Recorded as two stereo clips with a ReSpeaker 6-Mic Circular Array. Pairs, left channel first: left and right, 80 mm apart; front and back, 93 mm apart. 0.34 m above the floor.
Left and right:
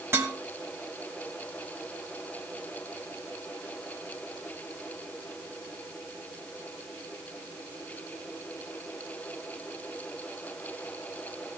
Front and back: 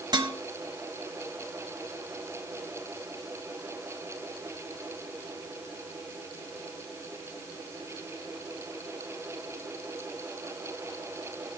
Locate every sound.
0.1 s dishes clattering: 145° right, 2 m